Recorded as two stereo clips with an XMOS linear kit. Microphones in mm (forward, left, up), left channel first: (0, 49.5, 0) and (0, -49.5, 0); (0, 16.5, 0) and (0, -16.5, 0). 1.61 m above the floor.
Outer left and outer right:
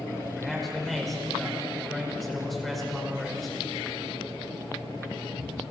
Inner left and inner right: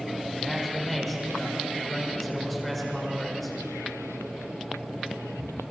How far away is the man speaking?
About 5 m.